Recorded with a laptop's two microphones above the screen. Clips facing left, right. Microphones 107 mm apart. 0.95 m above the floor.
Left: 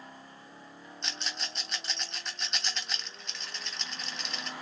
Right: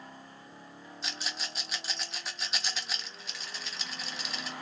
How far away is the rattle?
About 0.7 m.